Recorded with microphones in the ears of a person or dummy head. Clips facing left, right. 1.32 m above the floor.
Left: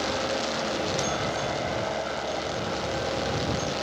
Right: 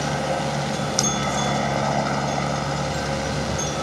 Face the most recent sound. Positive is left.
turn(degrees=-80)